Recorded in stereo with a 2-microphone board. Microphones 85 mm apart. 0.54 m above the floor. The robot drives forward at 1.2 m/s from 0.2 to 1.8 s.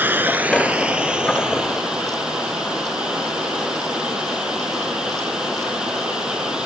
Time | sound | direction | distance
0.0 | running water | 25° right (ahead or behind) | 1.2 m